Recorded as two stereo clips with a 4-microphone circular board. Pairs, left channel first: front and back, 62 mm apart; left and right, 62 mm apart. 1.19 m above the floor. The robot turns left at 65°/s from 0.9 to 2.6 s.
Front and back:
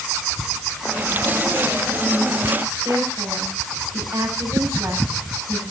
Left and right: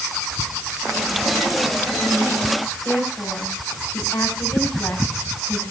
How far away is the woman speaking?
About 7.5 m.